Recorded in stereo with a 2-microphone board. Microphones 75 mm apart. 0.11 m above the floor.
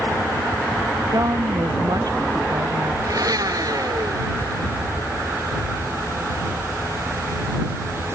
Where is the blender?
55° right (ahead or behind).